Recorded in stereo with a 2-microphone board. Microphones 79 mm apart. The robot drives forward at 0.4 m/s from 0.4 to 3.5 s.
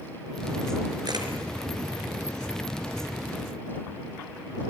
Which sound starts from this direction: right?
A camera shutter, at 1.1 s.